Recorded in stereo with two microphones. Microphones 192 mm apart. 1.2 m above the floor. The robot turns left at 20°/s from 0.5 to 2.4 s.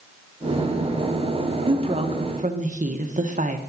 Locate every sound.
1.7 s a woman speaking: 30° right (ahead or behind), 1.1 m; by 3.6 s 40° right (ahead or behind), 1.1 m